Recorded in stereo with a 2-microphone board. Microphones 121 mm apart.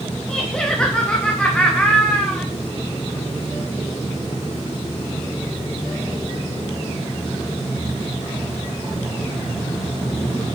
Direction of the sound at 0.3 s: 5° left (ahead or behind).